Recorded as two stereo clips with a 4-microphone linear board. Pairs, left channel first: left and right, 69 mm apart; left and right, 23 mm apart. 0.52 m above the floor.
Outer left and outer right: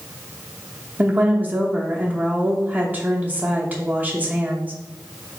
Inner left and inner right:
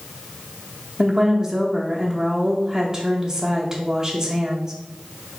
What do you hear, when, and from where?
1.0 s a woman speaking: 20° right (ahead or behind), 0.7 m